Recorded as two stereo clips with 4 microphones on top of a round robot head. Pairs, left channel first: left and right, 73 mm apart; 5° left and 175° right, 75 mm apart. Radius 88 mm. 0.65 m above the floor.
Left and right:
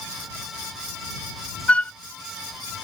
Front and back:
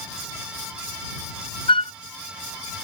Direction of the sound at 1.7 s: 15° left.